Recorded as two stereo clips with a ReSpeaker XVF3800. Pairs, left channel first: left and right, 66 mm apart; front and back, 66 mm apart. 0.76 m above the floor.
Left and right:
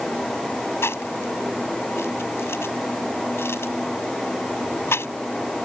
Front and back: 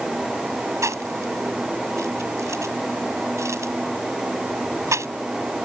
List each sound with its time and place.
0.8 s chewing: 140° left